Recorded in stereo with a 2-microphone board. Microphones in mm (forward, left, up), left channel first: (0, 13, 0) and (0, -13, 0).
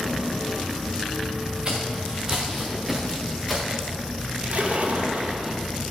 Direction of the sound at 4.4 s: 65° right (ahead or behind).